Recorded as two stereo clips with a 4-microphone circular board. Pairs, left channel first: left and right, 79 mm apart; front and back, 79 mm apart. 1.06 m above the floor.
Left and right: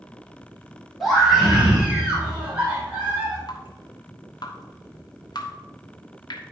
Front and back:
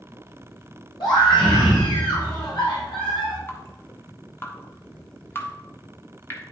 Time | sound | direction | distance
1.0 | a scream | straight ahead | 4.5 m
3.5 | dripping | 60° left | 1.3 m